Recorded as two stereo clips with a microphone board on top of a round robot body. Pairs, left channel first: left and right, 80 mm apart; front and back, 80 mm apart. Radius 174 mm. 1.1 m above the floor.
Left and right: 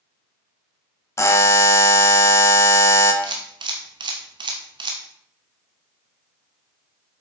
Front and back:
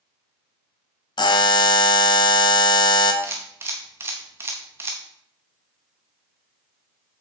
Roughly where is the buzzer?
Ahead left.